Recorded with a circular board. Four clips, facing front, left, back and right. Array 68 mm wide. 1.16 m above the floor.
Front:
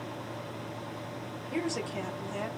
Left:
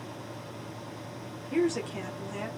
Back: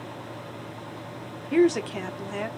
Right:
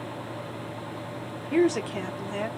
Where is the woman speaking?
150° right, 0.9 m.